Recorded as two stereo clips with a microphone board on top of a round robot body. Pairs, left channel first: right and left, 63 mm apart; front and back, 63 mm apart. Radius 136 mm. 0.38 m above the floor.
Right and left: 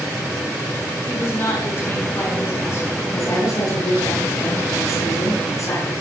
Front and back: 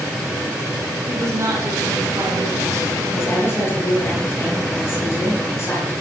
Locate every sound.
1.1 s a woman speaking: 140° right, 6 m
3.1 s a woman speaking: 55° right, 8.5 m